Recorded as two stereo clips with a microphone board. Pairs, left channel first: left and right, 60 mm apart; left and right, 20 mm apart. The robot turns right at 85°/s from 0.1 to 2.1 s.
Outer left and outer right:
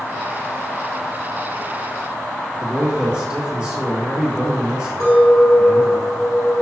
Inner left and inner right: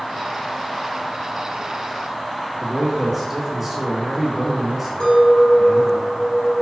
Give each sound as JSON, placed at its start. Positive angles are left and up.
{"t": 2.6, "sound": "a man speaking", "side_deg": -20, "distance_m": 1.7}
{"t": 5.0, "sound": "a clink", "side_deg": 70, "distance_m": 1.7}